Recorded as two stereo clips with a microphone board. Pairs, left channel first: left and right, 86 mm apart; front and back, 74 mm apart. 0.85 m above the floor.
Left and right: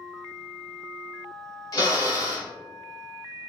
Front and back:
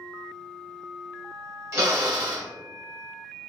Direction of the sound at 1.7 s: 135° left.